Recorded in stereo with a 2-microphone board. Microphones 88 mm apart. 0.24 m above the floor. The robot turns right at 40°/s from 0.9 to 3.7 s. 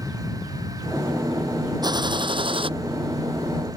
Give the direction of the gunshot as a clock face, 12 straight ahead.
4 o'clock.